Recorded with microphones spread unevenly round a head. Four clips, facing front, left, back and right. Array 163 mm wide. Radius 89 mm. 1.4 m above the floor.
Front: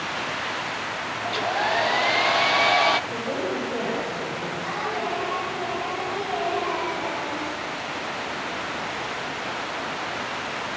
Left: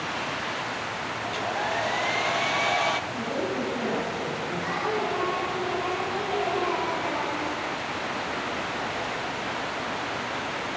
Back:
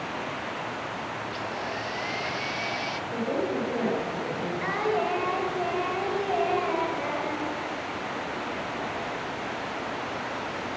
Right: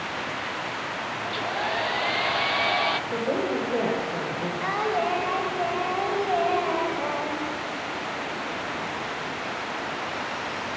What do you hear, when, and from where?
1.2 s a hair dryer: straight ahead, 0.8 m
3.1 s a woman speaking: 90° right, 5.5 m
4.6 s singing: 125° right, 3.5 m